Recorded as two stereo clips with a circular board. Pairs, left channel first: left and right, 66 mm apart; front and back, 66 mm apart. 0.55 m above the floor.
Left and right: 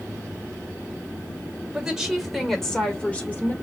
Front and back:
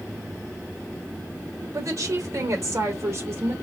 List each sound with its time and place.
1.7 s a woman speaking: 170° right, 2 m; by 3.5 s 145° left, 1.8 m